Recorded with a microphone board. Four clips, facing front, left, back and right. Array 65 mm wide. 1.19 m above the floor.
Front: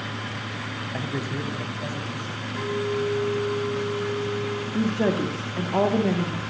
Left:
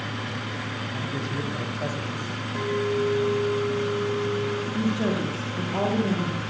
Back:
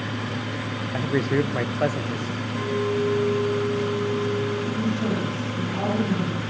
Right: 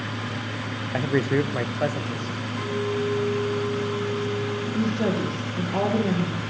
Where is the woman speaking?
10° right, 2 m.